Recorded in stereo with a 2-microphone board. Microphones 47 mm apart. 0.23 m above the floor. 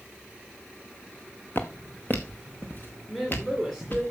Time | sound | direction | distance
1.6 | footsteps | 45° left (ahead or behind) | 1.2 m
3.1 | a woman speaking | 5° left (ahead or behind) | 2.5 m